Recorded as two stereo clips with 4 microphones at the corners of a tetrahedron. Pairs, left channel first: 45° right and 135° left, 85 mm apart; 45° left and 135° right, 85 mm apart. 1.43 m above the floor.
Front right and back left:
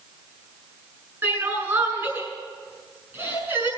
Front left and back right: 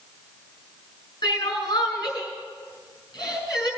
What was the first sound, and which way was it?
Crying, 75° left.